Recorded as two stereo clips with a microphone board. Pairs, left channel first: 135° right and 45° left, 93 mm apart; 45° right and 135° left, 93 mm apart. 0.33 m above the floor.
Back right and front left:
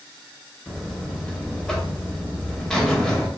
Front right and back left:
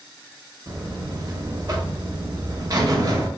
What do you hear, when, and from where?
0.7 s a buzzer: 145° left, 0.6 m